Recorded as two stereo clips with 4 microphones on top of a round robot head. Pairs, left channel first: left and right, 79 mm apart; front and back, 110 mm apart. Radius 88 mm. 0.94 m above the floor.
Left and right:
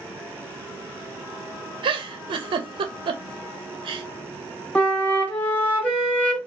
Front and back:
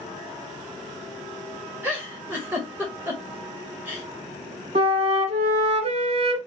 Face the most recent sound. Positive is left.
turn(degrees=160)